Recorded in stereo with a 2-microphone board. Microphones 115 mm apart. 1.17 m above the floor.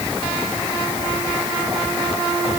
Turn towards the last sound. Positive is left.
No sound to turn to.